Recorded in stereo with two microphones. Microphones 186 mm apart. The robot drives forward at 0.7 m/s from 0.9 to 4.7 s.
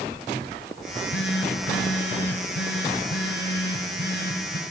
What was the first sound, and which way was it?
A phone buzzing, 80° left.